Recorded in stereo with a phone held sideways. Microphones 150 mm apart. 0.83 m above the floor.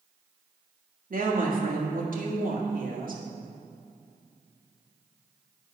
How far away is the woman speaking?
About 1.8 m.